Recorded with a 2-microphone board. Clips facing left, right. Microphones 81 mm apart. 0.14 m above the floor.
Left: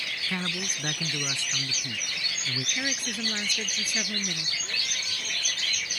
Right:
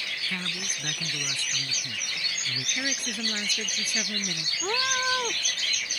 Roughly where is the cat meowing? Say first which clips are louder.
Right 10 dB; right.